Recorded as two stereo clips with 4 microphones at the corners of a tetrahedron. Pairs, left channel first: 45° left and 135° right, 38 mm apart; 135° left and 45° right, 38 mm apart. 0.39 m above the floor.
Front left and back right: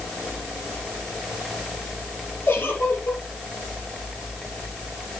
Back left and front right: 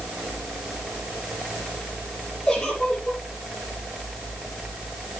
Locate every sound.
2.5 s a giggle: 65° left, 4.5 m